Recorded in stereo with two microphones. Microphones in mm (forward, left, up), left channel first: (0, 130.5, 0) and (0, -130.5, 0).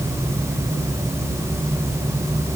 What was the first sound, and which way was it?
Only background noise.